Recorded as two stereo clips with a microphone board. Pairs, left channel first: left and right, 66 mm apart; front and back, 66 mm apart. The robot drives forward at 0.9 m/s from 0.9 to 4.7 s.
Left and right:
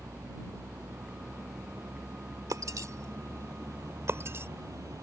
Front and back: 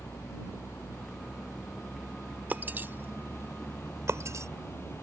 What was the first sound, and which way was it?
A vehicle, 50° right.